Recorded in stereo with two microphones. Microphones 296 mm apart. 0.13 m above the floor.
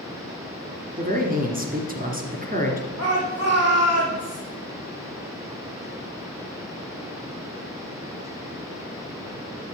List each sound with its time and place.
1.0 s a man speaking: 30° right (ahead or behind), 2 m
3.0 s a shout: 60° right (ahead or behind), 5 m